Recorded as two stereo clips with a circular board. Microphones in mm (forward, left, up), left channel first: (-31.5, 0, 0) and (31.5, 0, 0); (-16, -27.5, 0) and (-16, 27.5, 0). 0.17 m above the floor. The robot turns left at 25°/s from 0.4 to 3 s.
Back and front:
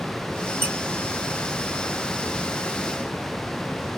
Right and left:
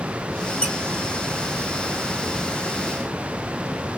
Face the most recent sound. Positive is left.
turn(degrees=-80)